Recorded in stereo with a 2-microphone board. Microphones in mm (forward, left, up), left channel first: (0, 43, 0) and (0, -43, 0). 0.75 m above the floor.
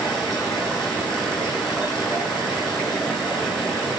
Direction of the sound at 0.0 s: 5° left (ahead or behind).